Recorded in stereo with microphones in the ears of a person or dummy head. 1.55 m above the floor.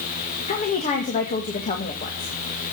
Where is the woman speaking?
40° left (ahead or behind), 1.8 m.